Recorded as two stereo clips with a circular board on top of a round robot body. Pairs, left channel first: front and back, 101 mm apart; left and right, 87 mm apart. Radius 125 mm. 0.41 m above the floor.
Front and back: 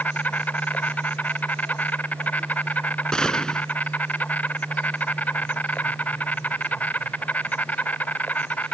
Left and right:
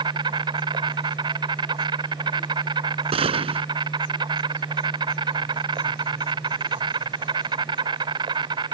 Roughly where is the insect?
Right.